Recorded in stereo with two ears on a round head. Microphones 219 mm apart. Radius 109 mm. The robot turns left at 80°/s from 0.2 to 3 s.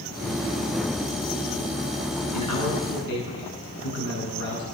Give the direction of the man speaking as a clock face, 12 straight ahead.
9 o'clock.